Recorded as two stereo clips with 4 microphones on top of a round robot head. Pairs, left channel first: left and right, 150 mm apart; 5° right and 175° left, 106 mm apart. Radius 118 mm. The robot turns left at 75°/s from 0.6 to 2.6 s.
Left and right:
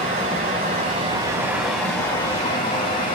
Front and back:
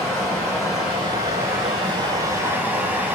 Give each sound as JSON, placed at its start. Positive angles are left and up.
{"t": 0.0, "sound": "running water", "azimuth_deg": -90, "distance_m": 1.4}